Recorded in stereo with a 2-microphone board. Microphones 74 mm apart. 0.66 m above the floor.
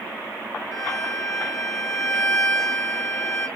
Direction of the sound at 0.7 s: 30° left (ahead or behind).